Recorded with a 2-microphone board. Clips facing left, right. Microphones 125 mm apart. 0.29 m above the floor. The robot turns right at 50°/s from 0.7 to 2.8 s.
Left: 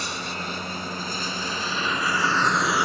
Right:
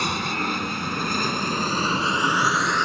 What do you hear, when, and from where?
0.0 s an aircraft: 60° right (ahead or behind); by 2.9 s 10° left (ahead or behind)